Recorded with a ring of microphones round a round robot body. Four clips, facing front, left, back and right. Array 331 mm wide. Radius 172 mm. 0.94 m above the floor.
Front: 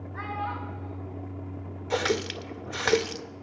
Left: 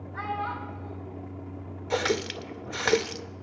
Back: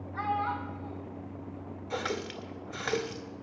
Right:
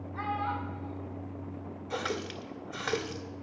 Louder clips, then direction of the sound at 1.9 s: Left 8 dB, front 7 dB; 45° left.